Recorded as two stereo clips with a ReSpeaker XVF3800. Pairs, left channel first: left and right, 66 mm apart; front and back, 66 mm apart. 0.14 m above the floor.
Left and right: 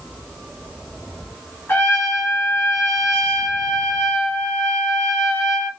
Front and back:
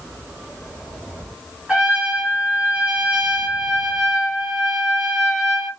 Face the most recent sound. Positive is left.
turn(degrees=105)